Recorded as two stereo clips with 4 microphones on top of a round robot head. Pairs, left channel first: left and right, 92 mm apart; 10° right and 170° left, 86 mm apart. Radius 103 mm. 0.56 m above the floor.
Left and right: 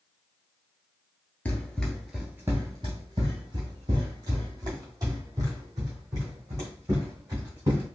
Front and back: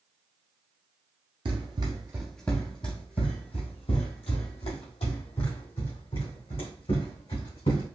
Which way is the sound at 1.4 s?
160° left.